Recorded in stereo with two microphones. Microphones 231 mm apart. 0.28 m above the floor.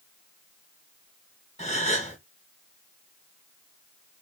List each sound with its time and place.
1.6 s a gasp: 30° left (ahead or behind), 1.5 m